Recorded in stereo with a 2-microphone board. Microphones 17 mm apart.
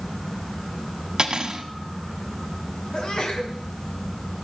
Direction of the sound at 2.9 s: 50° left (ahead or behind).